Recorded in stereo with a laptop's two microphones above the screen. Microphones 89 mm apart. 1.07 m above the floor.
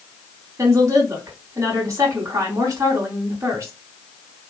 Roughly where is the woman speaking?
Right.